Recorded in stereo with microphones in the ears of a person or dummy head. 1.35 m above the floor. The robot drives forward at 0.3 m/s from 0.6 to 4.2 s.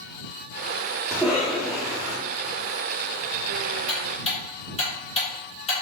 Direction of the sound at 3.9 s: 30° left (ahead or behind).